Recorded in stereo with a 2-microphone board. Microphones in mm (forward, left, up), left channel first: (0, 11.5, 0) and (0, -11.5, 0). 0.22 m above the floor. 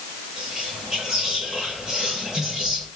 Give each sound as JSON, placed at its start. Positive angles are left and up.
{"t": 0.4, "sound": "whispering", "side_deg": -20, "distance_m": 1.5}